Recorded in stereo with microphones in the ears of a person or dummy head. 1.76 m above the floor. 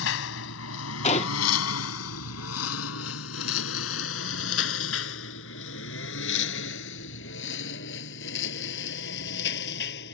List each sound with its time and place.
0.0 s a lawn mower: 60° left (ahead or behind); by 10.2 s 55° left (ahead or behind)
1.0 s a gunshot: 35° left (ahead or behind)